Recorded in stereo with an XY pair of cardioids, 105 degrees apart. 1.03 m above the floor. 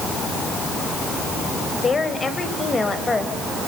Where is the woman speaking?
35° left, 4.5 m; by 3.3 s 25° left, 5 m.